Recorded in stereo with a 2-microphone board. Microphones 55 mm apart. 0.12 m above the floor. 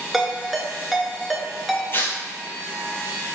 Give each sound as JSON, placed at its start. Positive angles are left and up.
{"t": 0.1, "sound": "a ringtone", "side_deg": 0, "distance_m": 0.5}
{"t": 1.9, "sound": "tearing paper", "side_deg": 40, "distance_m": 0.6}